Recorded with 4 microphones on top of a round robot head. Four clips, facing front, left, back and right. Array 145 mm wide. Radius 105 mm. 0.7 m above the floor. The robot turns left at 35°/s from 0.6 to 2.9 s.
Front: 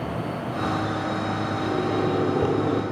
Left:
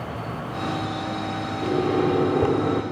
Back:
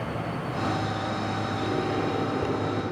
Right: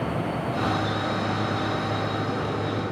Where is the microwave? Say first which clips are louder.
Left 6 dB, front 4 dB; 90° left, 1.8 m; by 2.8 s 50° left, 1.8 m.